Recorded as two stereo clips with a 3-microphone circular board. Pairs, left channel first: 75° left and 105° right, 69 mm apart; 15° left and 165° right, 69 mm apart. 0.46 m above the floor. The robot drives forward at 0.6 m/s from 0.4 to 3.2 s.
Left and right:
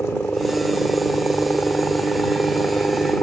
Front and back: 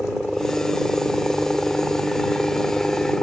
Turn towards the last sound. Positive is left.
turn(degrees=90)